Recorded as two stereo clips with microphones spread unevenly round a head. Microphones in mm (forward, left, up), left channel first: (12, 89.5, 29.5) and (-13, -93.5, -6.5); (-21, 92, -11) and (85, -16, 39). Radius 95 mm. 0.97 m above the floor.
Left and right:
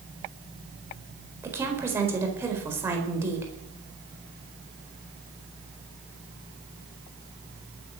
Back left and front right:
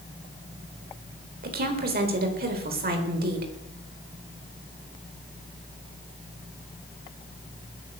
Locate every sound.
1.4 s a woman speaking: 20° right, 4 m